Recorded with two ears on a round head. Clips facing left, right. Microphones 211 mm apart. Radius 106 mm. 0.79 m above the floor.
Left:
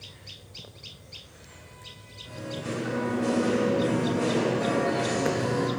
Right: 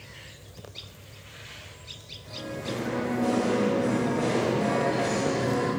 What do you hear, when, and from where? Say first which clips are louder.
2.2 s singing: even; 15° left (ahead or behind), 1.8 m